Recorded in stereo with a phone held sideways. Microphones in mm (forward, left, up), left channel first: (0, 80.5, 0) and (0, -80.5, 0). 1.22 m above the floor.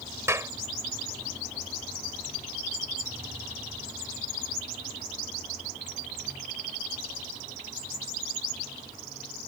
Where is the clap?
15° right (ahead or behind).